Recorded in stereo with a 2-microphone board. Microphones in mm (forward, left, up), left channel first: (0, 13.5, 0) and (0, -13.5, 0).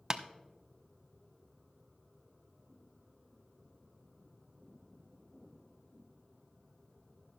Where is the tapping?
30° right (ahead or behind), 0.6 m.